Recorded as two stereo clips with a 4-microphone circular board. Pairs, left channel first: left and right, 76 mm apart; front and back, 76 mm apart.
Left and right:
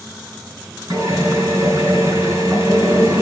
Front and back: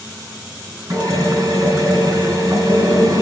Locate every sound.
0.9 s a drill: 140° right, 5.5 m